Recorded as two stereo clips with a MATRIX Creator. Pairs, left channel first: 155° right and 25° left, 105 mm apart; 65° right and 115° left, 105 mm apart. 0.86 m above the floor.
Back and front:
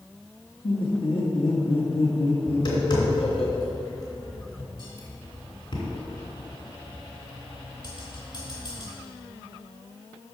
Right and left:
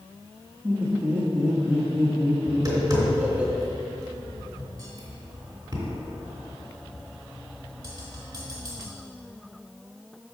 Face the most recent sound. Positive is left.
turn(degrees=170)